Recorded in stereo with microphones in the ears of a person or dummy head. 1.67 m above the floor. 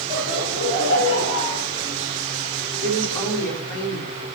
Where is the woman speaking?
20° left (ahead or behind), 4 m.